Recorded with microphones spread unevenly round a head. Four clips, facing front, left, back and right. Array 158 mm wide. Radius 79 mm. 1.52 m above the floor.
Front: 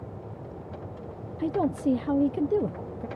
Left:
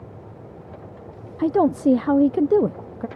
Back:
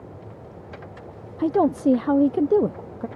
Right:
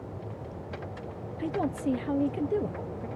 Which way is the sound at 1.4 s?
130° left.